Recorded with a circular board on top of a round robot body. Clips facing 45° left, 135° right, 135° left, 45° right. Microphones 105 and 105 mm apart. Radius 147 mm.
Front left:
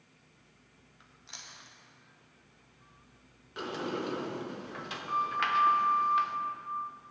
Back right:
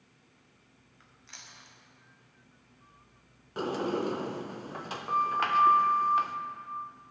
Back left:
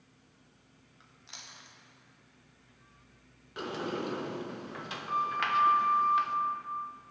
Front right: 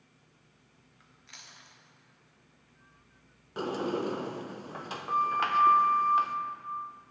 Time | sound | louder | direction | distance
1.0 | chewing | front left 1 dB, back left 2 dB | 95° left | 1.6 m
3.6 | a sliding door | back right 5 dB, front right 4 dB | 90° right | 0.7 m